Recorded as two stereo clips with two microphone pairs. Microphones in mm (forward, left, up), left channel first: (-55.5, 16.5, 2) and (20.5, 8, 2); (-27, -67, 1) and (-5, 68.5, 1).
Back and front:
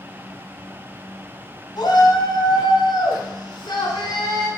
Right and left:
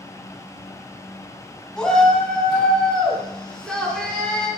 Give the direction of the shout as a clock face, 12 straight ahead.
6 o'clock.